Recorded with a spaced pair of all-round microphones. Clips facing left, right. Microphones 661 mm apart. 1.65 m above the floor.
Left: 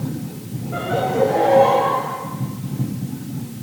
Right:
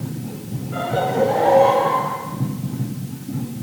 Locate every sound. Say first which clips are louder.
0.7 s laughter: left 1 dB; 25° right (ahead or behind), 8 m; by 2.1 s 30° right (ahead or behind), 9.5 m